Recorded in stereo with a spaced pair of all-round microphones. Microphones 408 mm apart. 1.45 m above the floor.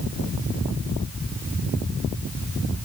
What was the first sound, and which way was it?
Only background noise.